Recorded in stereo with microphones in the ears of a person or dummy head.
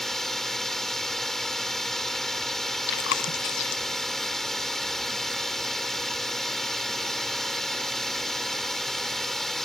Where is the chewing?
65° left (ahead or behind).